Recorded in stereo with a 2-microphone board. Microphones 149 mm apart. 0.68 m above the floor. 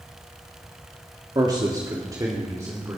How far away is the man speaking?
About 1.6 m.